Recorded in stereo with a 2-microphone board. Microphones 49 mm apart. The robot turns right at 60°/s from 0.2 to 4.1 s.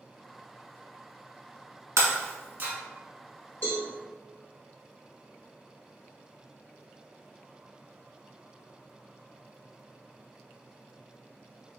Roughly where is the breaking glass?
Right.